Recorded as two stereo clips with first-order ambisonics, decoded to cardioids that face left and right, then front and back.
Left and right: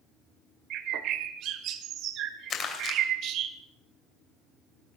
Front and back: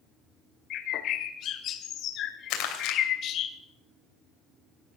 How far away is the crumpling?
About 2.5 m.